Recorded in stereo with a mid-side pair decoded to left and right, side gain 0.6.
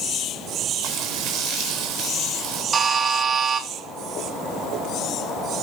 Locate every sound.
0.8 s frying: 65° right, 4 m
2.7 s a buzzer: 30° right, 2.5 m